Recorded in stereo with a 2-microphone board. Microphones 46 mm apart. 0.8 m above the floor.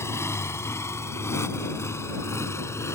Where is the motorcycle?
80° left; by 3.0 s 85° left.